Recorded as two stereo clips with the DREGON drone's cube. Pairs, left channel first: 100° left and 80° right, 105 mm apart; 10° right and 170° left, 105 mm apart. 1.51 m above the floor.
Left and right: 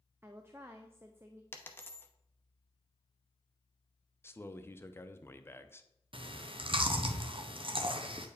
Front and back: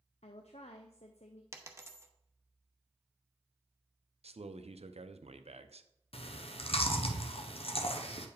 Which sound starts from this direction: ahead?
A woman speaking, at 0.2 s.